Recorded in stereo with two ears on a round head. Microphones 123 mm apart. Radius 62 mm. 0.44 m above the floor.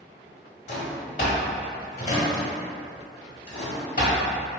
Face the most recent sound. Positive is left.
turn(degrees=55)  # may be behind; listen again after turning